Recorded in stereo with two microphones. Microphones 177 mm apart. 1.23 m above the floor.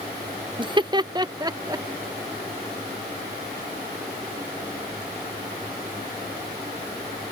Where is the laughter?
30° right (ahead or behind); by 1.9 s 20° right (ahead or behind).